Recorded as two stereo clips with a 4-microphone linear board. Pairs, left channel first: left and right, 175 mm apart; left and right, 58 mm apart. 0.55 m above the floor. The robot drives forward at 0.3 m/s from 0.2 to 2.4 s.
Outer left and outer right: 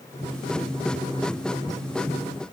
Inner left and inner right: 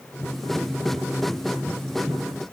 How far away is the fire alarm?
No fire alarm in this recording.